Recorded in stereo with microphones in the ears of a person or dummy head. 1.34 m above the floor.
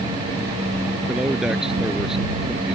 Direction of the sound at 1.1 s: 5° right (ahead or behind).